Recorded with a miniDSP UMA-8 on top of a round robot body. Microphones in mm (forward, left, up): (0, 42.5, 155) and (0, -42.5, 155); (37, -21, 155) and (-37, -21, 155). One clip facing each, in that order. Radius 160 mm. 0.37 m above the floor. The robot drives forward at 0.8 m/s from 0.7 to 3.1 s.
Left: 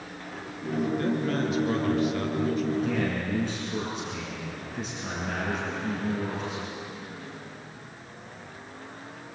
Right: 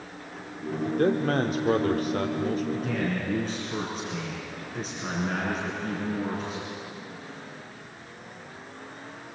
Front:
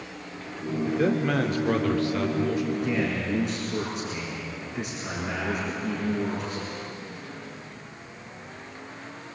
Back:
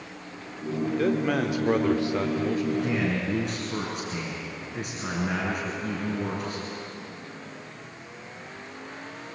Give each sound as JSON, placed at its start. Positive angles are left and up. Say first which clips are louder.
{"t": 0.9, "sound": "a man speaking", "louder": "right 5 dB, even", "azimuth_deg": -75, "distance_m": 1.6}
{"t": 2.7, "sound": "a man speaking", "louder": "left 2 dB, even", "azimuth_deg": -135, "distance_m": 6.0}